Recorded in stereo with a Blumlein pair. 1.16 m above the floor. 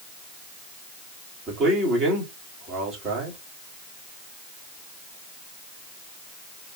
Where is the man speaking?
30° right, 3 m.